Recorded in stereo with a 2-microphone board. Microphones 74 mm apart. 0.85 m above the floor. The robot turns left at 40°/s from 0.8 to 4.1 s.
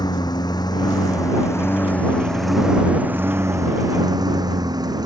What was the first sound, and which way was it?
A lawn mower, 65° left.